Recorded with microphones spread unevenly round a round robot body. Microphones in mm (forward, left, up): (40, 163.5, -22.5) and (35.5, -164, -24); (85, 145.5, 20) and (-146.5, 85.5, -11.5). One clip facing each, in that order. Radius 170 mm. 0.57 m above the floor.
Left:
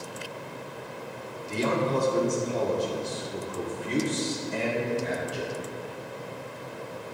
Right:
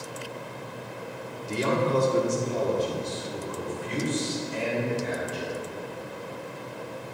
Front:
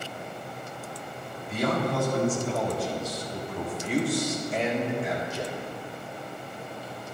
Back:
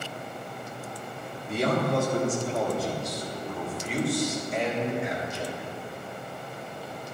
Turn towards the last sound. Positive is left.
turn(degrees=75)